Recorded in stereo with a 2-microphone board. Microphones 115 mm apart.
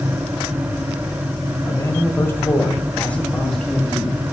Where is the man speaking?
25° left (ahead or behind), 1.6 m; by 4.2 s centre (ahead or behind), 1.9 m.